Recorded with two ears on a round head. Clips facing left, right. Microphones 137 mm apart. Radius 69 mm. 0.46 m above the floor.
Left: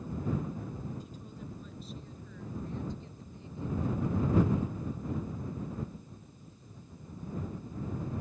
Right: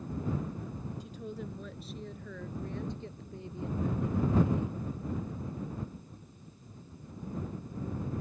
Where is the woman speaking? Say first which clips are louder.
Right 5 dB; 55° right (ahead or behind); by 4.8 s 45° right (ahead or behind).